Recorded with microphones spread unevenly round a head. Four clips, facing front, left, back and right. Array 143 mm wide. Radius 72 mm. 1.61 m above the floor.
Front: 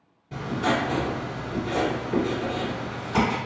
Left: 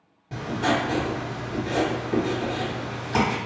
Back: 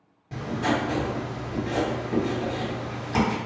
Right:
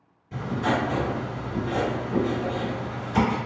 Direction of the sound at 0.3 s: 95° left.